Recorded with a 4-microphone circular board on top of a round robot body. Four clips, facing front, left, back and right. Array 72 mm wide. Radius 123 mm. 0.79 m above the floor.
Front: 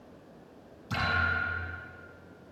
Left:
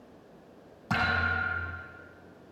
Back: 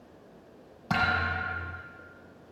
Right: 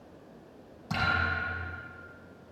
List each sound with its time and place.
0.9 s a thud: 155° left, 7 m